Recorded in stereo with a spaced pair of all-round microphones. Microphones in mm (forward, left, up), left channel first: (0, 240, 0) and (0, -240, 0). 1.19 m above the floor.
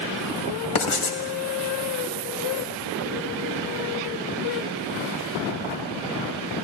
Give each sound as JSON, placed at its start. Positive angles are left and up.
{"t": 0.8, "sound": "writing", "side_deg": 85, "distance_m": 1.2}